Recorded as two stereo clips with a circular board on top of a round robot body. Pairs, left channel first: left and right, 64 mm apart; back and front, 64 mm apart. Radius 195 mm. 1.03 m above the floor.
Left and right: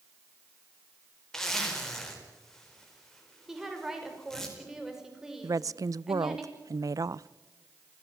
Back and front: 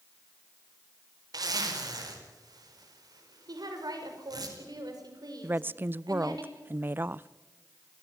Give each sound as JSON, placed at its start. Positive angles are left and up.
{"t": 1.3, "sound": "a zipper", "azimuth_deg": 5, "distance_m": 5.0}
{"t": 3.5, "sound": "a woman speaking", "azimuth_deg": -10, "distance_m": 6.0}
{"t": 5.4, "sound": "a woman speaking", "azimuth_deg": -60, "distance_m": 0.6}